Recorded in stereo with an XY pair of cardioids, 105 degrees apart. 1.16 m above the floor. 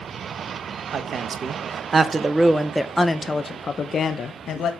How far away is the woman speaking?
About 1.4 m.